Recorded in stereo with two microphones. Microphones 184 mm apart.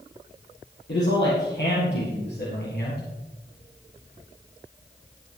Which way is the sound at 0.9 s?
70° left (ahead or behind).